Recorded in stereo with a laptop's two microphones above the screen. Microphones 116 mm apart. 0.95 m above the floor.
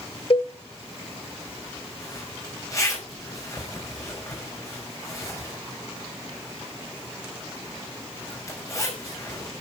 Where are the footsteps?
No footsteps in this recording.